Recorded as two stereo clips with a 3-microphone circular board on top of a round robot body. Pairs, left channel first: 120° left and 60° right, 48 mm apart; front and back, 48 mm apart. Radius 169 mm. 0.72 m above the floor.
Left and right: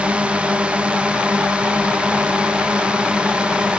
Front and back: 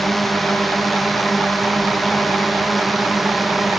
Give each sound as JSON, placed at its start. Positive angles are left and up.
{"t": 0.0, "sound": "a drone", "azimuth_deg": -85}